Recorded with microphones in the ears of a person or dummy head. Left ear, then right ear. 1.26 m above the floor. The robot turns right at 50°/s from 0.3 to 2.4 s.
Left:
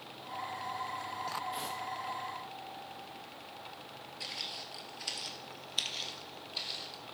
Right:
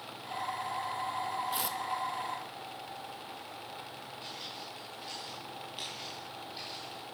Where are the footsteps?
45° left (ahead or behind), 1.7 m; by 7.0 s 35° left (ahead or behind), 3 m.